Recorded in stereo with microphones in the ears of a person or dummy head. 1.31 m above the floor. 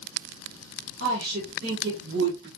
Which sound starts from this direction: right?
A woman speaking, at 1.0 s.